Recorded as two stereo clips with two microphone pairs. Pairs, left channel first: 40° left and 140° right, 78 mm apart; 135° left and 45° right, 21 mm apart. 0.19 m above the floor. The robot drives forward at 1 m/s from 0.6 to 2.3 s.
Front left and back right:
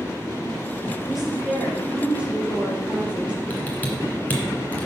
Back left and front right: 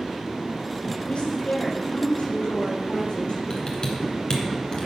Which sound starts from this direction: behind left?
A woman speaking, at 1.1 s.